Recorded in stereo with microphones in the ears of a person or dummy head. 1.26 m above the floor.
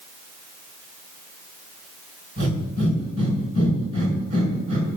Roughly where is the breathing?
Right.